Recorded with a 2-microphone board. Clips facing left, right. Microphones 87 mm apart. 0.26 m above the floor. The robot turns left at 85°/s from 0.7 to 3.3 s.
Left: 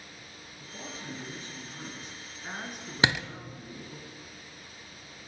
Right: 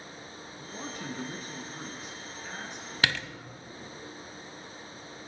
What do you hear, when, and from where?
0.6 s a man speaking: 60° right, 3.5 m; by 4.0 s 75° left, 3.5 m
3.0 s a door slam: 25° left (ahead or behind), 0.9 m; by 3.3 s 5° left (ahead or behind), 0.9 m